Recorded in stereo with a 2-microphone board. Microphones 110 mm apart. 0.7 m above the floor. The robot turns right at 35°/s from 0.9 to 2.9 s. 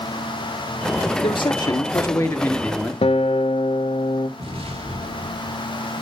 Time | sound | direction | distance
1.2 | a man speaking | 120° left | 1.4 m
3.0 | a guitar | 60° left (ahead or behind) | 0.8 m
4.4 | an explosion | 60° right (ahead or behind) | 1.9 m